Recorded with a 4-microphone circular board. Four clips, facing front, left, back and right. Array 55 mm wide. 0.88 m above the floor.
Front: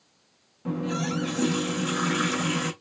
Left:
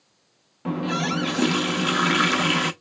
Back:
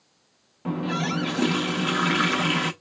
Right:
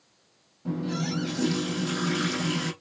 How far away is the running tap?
About 0.6 m.